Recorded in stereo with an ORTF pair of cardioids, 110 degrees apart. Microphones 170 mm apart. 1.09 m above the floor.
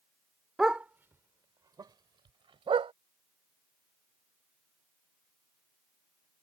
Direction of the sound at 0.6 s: 5° right.